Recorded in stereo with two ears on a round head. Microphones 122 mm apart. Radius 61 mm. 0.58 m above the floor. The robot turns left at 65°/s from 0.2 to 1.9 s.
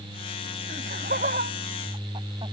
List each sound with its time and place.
0.7 s laughter: 65° right (ahead or behind); by 2.5 s 35° right (ahead or behind)